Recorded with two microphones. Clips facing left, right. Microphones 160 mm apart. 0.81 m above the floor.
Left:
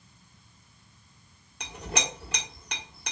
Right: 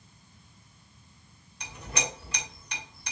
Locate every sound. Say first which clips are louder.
1.6 s a clink: left 2 dB; 65° left (ahead or behind), 1.7 m